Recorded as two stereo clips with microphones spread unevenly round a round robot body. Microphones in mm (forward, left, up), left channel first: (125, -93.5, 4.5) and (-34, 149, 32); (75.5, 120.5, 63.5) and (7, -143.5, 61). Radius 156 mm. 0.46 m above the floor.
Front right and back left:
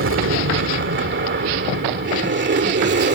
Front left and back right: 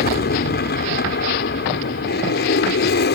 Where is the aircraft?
105° left; by 3.1 s 90° left.